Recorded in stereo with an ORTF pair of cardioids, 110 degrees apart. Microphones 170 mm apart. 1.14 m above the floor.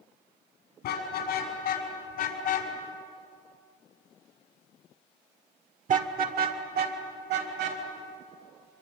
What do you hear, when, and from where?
0.8 s a car horn: 70° left, 6.5 m; by 7.8 s 75° right, 4.5 m